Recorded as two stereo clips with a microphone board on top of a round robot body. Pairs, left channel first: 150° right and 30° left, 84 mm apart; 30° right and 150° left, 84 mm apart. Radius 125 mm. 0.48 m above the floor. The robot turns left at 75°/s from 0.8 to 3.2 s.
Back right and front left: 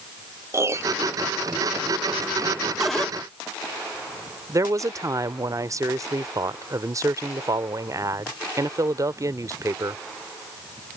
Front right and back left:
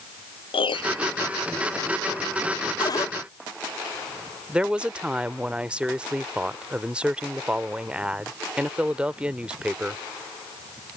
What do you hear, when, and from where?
0.5 s a piano: 25° right; by 1.1 s 45° right
2.8 s a cupboard door: 55° right; by 3.1 s 80° right
4.5 s a woman speaking: 75° left